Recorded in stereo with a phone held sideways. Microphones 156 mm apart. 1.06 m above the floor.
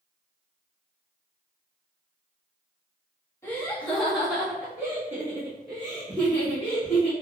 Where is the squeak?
No squeak in this recording.